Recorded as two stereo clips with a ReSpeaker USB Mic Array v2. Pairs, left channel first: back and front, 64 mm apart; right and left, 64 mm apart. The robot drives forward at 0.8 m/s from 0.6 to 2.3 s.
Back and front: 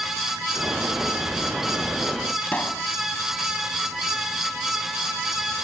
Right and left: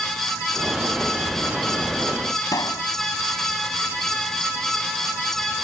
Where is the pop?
110° right.